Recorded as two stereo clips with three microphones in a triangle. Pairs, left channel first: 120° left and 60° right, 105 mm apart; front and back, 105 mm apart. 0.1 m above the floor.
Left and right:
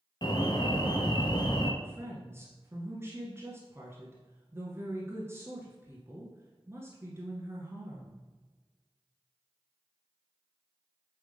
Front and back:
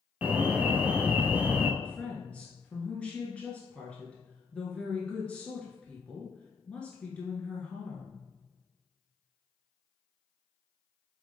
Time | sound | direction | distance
0.2 | an alarm | 105° left | 1.1 m
1.8 | a woman speaking | 60° right | 1.4 m